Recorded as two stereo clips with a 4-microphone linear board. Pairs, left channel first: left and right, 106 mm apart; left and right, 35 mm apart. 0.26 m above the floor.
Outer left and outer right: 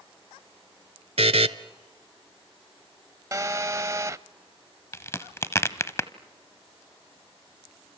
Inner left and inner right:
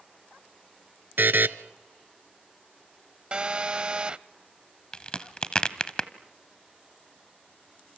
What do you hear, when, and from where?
1.2 s a buzzer: 80° right, 0.7 m
3.3 s a phone buzzing: 30° right (ahead or behind), 0.5 m
4.9 s a crack: 25° left (ahead or behind), 0.9 m